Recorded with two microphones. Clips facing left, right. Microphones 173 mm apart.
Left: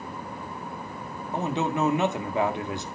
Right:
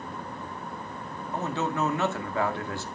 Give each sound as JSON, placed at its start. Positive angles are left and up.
{"t": 1.3, "sound": "a man speaking", "side_deg": 20, "distance_m": 1.8}